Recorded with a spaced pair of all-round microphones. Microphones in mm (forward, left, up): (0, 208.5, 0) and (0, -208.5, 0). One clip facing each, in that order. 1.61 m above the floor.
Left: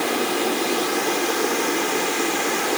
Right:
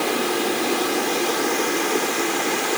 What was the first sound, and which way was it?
Only background noise.